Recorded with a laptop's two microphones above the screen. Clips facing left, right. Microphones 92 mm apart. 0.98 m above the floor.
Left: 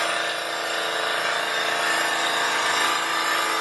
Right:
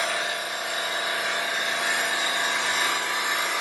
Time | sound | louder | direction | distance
0.0 | an engine running | left 2 dB | 65° left (ahead or behind) | 2 m